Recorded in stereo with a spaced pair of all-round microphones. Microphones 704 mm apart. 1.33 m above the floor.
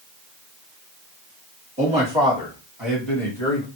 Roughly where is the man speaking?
Centre.